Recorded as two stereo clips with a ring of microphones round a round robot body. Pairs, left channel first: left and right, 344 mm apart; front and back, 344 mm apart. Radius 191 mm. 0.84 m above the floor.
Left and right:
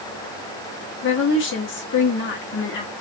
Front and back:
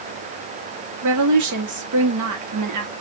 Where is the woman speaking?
145° left, 1.7 m.